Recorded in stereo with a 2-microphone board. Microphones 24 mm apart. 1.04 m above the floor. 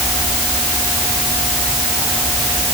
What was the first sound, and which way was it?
Only background noise.